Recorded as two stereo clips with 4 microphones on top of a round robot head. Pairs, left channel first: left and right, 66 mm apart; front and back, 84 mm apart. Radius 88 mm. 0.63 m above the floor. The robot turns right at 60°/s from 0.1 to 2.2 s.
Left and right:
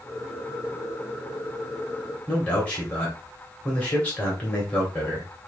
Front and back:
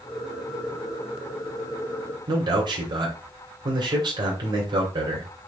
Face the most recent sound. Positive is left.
turn(degrees=160)